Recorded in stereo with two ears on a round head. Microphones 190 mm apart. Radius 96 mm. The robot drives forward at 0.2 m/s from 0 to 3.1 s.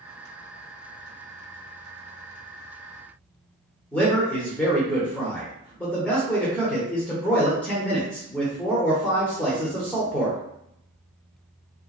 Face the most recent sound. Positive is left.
turn(degrees=5)  # may be behind; listen again after turning